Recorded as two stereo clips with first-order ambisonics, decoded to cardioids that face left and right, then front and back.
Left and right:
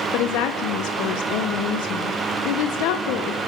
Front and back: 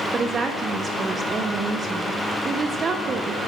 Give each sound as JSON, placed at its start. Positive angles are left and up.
{"t": 0.1, "sound": "a woman speaking", "azimuth_deg": 110, "distance_m": 0.7}